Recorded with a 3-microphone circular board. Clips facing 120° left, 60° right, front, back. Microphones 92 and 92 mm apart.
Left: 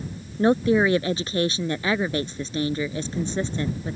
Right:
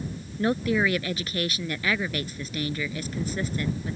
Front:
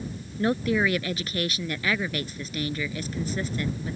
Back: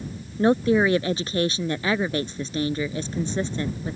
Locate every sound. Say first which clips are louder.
0.4 s a woman speaking: left 5 dB, back 5 dB; 150° left